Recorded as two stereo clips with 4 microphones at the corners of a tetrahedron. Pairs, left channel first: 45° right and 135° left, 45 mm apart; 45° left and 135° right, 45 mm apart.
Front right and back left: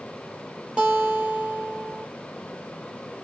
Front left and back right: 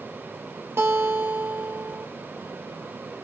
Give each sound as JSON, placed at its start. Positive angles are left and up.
{"t": 0.8, "sound": "a guitar", "azimuth_deg": -160, "distance_m": 1.6}